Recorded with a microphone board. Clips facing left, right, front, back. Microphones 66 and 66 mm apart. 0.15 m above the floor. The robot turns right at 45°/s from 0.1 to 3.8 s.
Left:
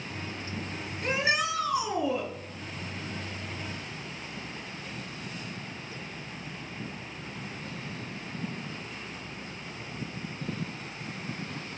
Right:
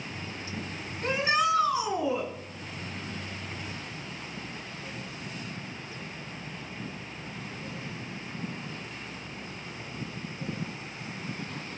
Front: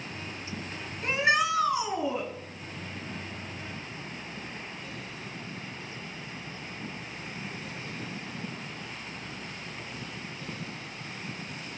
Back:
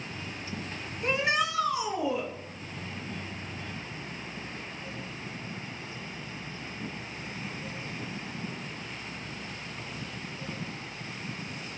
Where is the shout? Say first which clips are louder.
Right 2 dB, front 2 dB; 100° right, 1.5 m; by 2.3 s 45° right, 1.5 m.